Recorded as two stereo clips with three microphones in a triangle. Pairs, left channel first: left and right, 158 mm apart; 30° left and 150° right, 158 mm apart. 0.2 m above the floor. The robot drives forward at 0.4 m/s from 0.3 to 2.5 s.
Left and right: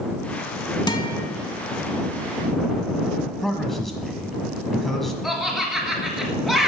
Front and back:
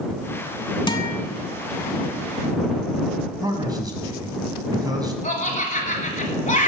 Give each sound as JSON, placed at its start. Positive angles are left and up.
{"t": 0.9, "sound": "a guitar", "azimuth_deg": 55, "distance_m": 0.8}
{"t": 3.4, "sound": "a man speaking", "azimuth_deg": 175, "distance_m": 1.3}
{"t": 5.2, "sound": "laughter", "azimuth_deg": 5, "distance_m": 1.5}